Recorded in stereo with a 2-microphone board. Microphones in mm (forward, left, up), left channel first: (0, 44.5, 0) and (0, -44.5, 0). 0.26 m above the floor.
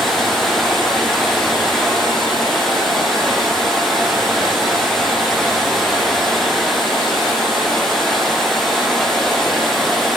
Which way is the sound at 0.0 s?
Centre (ahead or behind).